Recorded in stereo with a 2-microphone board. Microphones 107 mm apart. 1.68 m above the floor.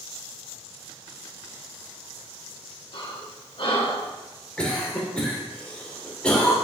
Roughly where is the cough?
Centre.